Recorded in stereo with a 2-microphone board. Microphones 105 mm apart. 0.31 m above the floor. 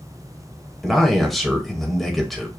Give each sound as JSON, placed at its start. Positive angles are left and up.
{"t": 0.8, "sound": "a man speaking", "side_deg": 0, "distance_m": 1.3}